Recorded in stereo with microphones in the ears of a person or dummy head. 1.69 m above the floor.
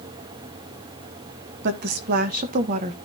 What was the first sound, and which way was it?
A woman speaking, 55° right (ahead or behind).